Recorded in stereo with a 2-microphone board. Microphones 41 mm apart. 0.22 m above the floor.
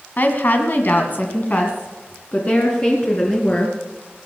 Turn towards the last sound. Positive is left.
turn(degrees=25)  # may be behind; listen again after turning